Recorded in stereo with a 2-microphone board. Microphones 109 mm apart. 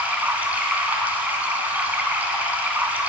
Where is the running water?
15° right (ahead or behind), 1.0 m.